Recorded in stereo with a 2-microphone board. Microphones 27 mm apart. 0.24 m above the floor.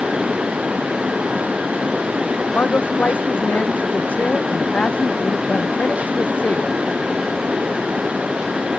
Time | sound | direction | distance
2.5 | a man speaking | 80° left | ?